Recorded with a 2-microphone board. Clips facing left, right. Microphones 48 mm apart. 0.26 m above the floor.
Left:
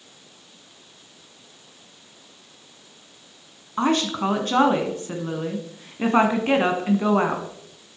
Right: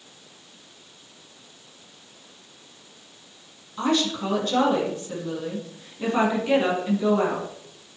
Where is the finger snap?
No finger snap in this recording.